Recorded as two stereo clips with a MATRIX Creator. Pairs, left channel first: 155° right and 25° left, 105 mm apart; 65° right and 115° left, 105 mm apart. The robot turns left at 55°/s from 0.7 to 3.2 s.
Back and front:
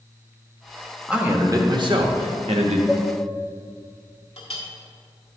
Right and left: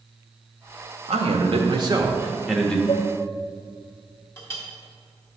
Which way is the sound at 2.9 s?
35° right.